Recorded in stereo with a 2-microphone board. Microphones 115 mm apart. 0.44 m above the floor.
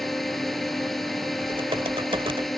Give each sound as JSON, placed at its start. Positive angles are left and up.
{"t": 0.0, "sound": "a drone", "side_deg": 0}
{"t": 1.4, "sound": "typing on a keyboard", "side_deg": -45}